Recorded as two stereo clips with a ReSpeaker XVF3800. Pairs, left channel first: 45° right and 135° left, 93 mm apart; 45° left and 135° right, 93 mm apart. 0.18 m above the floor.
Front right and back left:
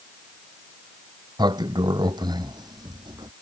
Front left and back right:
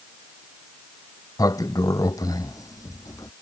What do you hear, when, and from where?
1.4 s a sliding door: 95° left